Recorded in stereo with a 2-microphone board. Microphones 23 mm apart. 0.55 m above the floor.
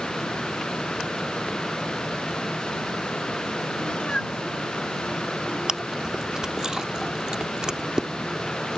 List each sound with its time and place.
3.8 s a cat meowing: 50° left (ahead or behind)
5.7 s chewing: 35° right (ahead or behind)